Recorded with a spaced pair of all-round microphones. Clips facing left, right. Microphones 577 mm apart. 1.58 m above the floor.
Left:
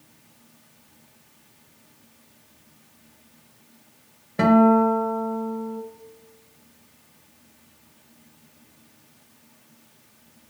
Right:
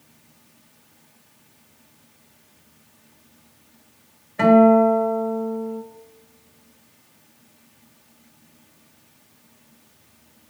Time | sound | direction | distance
4.4 | a guitar | 60° left (ahead or behind) | 1.3 m